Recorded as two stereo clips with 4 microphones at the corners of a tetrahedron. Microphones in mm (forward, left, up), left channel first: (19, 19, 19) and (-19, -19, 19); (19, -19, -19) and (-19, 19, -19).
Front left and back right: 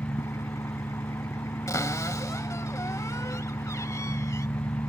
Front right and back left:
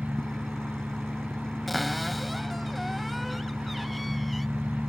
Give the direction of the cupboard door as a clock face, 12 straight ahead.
11 o'clock.